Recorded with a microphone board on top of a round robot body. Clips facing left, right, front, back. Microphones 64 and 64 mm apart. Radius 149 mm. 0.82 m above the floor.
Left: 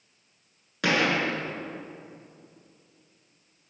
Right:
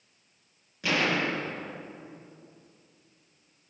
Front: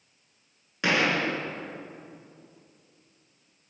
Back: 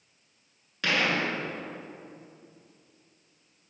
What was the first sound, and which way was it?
A gunshot, 70° left.